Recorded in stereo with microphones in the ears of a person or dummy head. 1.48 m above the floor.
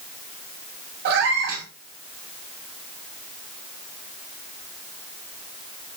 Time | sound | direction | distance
1.1 | a cat meowing | 60° right (ahead or behind) | 1.2 m